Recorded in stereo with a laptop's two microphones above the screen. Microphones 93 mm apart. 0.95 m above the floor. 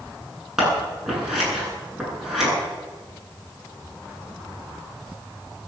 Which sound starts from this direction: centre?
Scissors, at 0.6 s.